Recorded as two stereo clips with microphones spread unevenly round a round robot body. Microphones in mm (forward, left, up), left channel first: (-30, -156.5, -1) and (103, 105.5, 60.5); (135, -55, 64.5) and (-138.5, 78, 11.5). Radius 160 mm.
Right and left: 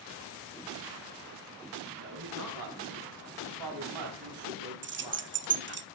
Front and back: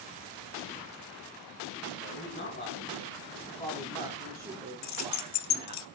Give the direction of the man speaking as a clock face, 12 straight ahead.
11 o'clock.